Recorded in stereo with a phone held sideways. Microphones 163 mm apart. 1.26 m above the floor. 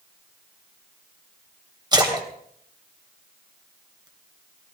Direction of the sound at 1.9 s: 25° right (ahead or behind).